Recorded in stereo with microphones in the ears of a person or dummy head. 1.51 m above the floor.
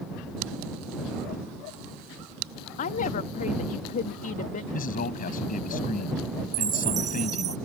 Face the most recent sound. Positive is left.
turn(degrees=-25)  # may be behind; listen again after turning